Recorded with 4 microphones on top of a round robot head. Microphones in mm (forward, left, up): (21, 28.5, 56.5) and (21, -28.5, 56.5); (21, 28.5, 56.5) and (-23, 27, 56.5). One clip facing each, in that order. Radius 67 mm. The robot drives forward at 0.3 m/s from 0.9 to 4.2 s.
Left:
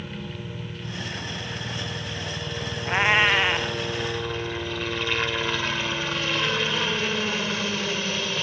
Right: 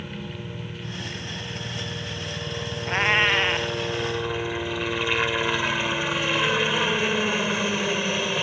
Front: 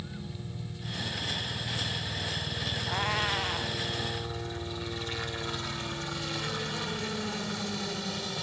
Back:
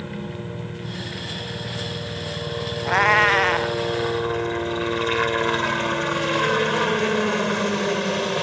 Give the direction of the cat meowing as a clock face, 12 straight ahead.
6 o'clock.